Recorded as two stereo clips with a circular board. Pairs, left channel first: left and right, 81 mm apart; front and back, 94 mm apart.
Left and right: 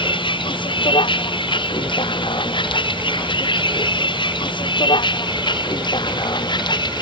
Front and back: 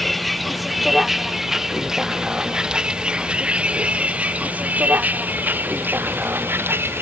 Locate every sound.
0.0 s a vehicle: 90° left; by 7.0 s 115° left